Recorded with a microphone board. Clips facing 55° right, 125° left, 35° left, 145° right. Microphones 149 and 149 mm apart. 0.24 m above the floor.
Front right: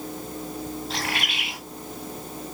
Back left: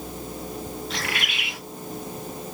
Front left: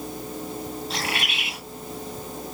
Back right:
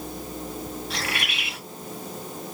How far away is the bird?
About 2.5 m.